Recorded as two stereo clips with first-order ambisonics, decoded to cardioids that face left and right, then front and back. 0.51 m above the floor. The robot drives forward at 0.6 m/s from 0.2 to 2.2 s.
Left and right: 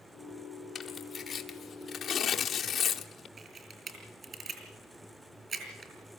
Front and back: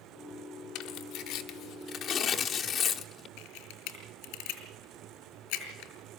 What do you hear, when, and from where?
0.8 s tearing paper: 15° left, 1.6 m; by 3.3 s 40° left, 1.0 m
3.4 s a camera shutter: 25° right, 4 m